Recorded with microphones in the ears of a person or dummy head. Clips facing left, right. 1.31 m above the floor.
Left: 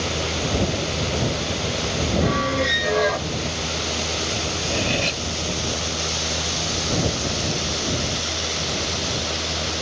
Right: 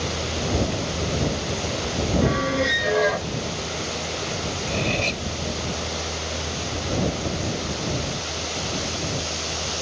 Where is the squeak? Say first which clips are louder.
Right 1 dB; centre (ahead or behind).